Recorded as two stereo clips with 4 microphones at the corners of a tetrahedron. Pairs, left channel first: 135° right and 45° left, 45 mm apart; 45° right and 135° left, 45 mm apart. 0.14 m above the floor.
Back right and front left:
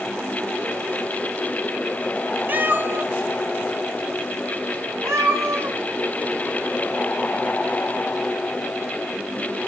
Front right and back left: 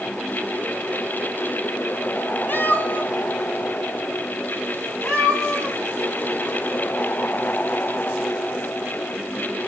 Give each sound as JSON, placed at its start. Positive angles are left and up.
{"t": 2.5, "sound": "a cat meowing", "azimuth_deg": 0, "distance_m": 0.7}